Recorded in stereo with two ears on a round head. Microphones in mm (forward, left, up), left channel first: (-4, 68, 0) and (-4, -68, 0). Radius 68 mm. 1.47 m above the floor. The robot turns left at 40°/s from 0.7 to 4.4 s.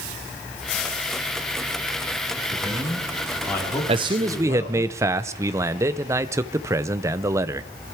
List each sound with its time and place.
2.5 s a man speaking: 150° right, 4 m; by 4.9 s 135° left, 4 m
3.9 s a man speaking: 35° right (ahead or behind), 0.6 m; by 7.7 s 20° right (ahead or behind), 0.6 m